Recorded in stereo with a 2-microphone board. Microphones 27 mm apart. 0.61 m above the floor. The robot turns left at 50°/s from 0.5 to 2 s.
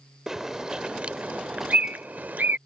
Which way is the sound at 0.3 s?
20° right (ahead or behind).